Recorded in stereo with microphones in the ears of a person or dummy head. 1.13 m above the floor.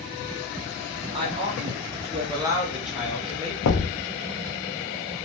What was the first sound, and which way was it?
A woman speaking, 30° right (ahead or behind).